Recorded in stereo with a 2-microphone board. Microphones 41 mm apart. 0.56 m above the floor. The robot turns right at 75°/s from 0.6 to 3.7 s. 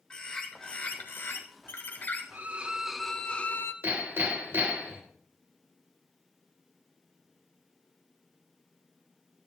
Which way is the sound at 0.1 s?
20° left.